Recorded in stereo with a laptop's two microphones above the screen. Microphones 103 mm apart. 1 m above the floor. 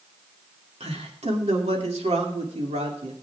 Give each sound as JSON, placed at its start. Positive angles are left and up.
{"t": 0.8, "sound": "a man speaking", "side_deg": -75, "distance_m": 2.5}